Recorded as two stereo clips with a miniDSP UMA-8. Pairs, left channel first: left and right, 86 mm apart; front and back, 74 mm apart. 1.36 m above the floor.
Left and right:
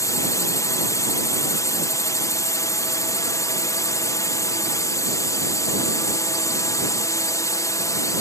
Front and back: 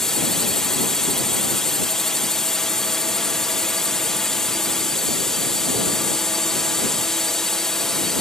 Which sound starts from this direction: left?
A drone, at 0.0 s.